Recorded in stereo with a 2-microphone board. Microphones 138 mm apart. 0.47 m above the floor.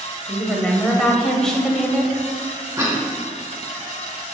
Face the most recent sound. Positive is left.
turn(degrees=-20)  # may be behind; listen again after turning